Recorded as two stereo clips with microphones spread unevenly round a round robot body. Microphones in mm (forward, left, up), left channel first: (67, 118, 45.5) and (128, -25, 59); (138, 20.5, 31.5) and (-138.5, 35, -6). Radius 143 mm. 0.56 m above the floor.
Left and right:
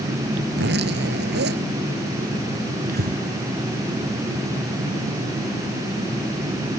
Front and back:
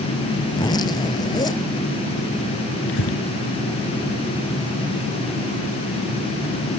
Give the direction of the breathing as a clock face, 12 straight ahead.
2 o'clock.